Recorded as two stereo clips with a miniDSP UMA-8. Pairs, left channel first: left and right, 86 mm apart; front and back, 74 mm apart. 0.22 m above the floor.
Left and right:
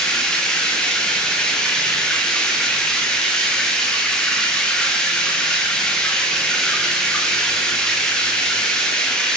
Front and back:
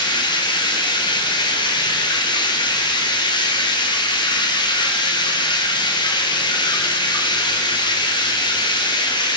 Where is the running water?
10° left, 4.5 m.